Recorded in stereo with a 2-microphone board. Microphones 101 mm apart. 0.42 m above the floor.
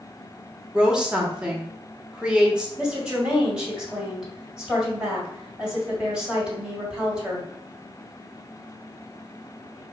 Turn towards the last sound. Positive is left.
turn(degrees=-10)  # may be behind; listen again after turning